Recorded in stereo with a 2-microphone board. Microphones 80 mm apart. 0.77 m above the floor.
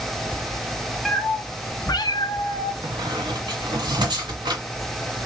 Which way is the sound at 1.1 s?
5° left (ahead or behind).